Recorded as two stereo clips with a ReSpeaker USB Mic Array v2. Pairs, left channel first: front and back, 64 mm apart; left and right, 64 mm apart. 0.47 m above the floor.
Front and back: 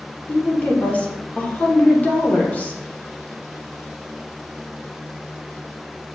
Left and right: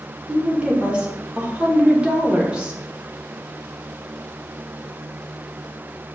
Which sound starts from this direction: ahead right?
A woman speaking, at 0.3 s.